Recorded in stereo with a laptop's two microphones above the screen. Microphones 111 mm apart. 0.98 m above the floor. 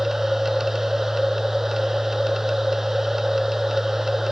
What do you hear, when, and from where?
0.0 s a machine running: 5° right (ahead or behind)